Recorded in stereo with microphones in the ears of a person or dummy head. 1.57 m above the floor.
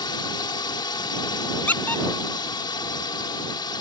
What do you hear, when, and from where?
0.0 s a drone: 25° left (ahead or behind)
1.7 s a squeak: 15° left (ahead or behind)